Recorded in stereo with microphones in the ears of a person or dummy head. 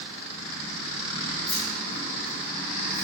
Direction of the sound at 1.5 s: 65° left (ahead or behind).